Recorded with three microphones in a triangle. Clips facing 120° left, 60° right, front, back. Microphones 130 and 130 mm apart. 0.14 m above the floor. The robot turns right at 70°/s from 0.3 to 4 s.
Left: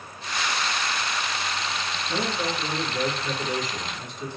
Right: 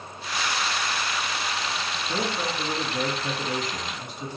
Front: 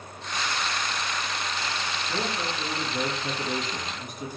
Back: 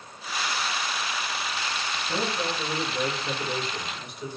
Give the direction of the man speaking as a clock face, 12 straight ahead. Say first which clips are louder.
Left 1 dB, back 3 dB; 4 o'clock.